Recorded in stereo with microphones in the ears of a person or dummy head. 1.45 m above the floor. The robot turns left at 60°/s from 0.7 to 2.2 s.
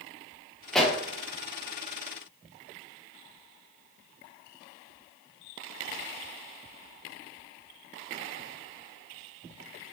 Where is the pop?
5° left (ahead or behind), 0.6 m; by 1.0 s 10° right (ahead or behind), 0.6 m.